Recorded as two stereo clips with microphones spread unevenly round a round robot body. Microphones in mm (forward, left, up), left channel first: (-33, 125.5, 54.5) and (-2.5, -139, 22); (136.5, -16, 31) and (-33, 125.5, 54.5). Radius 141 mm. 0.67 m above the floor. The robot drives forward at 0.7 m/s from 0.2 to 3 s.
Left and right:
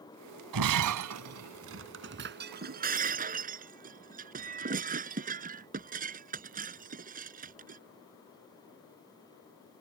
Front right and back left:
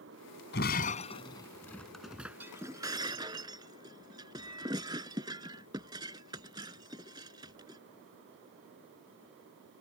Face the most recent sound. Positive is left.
turn(degrees=-145)